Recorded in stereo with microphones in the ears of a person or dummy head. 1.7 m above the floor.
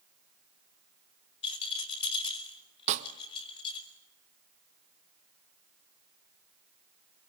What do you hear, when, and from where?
1.4 s a rattle: 30° left (ahead or behind), 4.5 m
2.9 s a snare drum: 35° right (ahead or behind), 1.1 m